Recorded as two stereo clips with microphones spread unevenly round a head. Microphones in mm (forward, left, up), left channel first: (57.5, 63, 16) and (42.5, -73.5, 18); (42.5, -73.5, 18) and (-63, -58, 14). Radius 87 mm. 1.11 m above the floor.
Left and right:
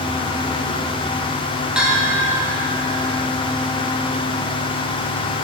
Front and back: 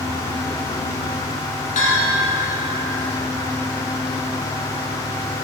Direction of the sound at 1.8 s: 15° right.